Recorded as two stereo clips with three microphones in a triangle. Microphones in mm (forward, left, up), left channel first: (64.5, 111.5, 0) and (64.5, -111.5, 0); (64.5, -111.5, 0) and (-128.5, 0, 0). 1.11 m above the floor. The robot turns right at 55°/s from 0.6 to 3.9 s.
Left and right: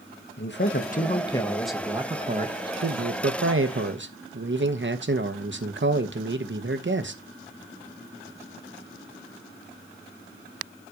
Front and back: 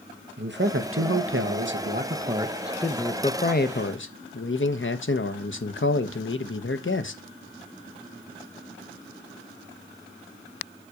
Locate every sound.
0.4 s a man speaking: 120° left, 1.0 m; by 7.2 s 60° right, 1.0 m